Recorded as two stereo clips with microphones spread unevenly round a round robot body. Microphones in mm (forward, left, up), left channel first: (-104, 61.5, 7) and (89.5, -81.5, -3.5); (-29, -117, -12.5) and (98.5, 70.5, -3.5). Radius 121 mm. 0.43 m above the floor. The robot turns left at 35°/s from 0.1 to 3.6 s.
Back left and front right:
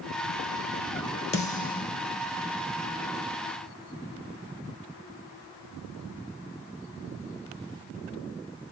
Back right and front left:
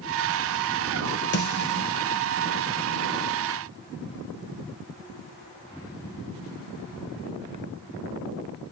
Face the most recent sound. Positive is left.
turn(degrees=125)